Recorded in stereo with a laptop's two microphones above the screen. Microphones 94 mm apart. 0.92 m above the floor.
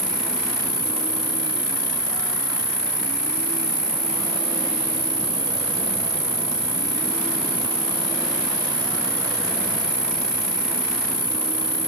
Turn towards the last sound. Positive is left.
turn(degrees=-40)  # may be behind; listen again after turning